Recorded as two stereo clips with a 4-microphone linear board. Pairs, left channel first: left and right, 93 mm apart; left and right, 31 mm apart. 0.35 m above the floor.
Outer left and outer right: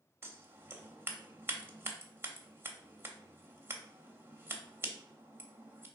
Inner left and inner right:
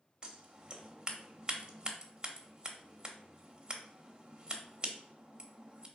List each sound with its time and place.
0.2 s scissors: 25° right (ahead or behind), 0.8 m